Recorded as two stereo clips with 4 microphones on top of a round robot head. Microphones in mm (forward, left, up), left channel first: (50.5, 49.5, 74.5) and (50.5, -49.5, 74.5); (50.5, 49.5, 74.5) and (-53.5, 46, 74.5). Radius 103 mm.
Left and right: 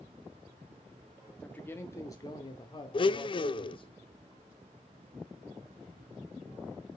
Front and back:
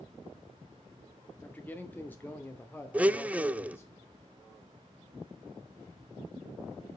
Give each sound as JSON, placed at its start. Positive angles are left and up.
{"t": 1.4, "sound": "a man speaking", "azimuth_deg": 40, "distance_m": 0.9}
{"t": 2.9, "sound": "a blender", "azimuth_deg": 105, "distance_m": 0.5}